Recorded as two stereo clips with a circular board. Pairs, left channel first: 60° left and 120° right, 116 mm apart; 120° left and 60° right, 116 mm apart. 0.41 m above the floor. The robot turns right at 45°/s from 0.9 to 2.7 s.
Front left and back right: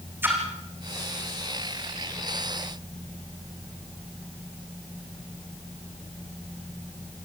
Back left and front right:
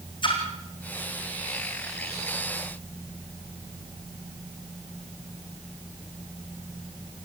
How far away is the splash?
About 4.5 m.